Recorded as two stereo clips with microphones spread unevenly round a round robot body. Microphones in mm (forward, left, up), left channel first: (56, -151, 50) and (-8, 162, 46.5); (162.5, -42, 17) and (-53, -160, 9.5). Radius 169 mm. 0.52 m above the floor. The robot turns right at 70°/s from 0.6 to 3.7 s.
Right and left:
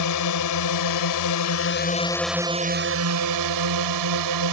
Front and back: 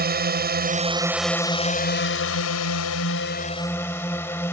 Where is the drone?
105° right; by 4.5 s 110° left.